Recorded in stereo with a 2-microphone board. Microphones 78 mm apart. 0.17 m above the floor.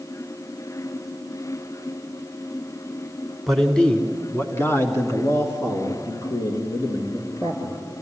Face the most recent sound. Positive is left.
turn(degrees=65)  # may be behind; listen again after turning